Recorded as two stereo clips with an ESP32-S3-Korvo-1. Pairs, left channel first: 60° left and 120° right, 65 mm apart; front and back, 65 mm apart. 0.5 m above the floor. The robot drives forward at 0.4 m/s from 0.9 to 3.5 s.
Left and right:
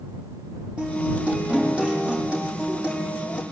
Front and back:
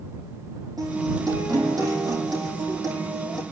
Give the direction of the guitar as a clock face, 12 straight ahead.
6 o'clock.